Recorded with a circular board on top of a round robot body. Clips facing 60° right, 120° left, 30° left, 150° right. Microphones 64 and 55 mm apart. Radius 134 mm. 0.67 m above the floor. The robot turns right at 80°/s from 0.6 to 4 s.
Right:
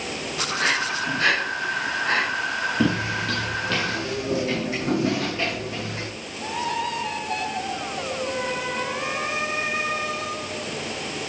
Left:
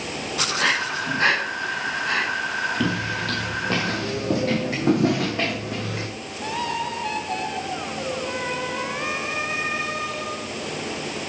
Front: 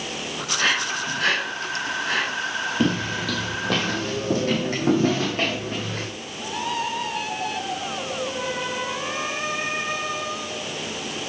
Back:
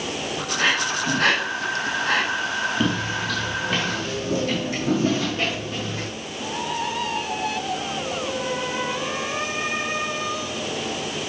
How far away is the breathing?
About 2.5 m.